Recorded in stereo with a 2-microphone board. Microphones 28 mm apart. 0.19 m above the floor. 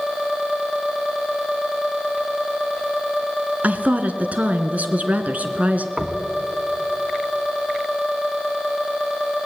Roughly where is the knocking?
Right.